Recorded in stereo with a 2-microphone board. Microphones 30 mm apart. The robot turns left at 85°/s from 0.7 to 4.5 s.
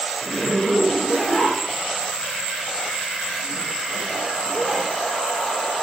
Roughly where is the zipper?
Left.